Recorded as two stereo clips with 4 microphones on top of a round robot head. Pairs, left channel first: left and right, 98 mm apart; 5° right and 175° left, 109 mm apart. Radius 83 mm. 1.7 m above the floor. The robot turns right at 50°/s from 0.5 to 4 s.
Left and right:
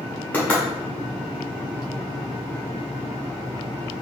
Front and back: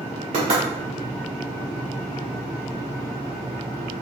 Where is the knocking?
160° left, 1.7 m; by 0.6 s 165° left, 1.7 m.